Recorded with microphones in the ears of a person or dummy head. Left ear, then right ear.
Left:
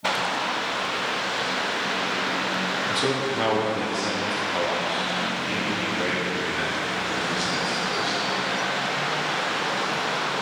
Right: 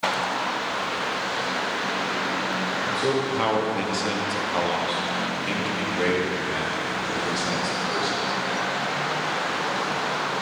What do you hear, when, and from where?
2.9 s a man speaking: 25° left (ahead or behind), 0.9 m; by 8.3 s 75° right (ahead or behind), 5 m